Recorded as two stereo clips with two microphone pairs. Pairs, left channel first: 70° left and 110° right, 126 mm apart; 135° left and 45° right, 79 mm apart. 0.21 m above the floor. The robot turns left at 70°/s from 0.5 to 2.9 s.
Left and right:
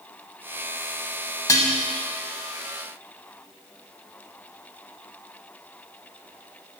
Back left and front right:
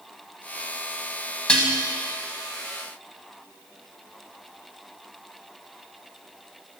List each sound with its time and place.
1.5 s dishes clattering: 70° left, 0.8 m; by 1.7 s 55° left, 0.8 m